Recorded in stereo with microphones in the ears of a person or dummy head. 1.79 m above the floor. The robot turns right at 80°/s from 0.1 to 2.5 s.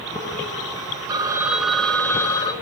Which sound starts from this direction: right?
A phone ringing, at 1.1 s.